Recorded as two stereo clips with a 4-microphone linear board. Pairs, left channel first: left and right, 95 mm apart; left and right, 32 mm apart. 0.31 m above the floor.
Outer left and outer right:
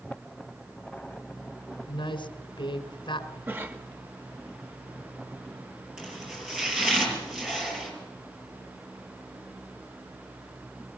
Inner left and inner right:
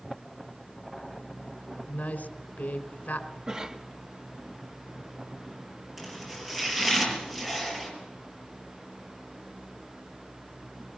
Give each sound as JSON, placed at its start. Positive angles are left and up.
{"t": 1.9, "sound": "a woman speaking", "side_deg": 60, "distance_m": 3.0}
{"t": 3.5, "sound": "a cough", "side_deg": -25, "distance_m": 1.4}
{"t": 6.0, "sound": "chopping", "side_deg": -10, "distance_m": 7.5}